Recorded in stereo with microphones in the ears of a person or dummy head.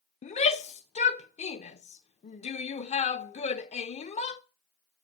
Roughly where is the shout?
Left.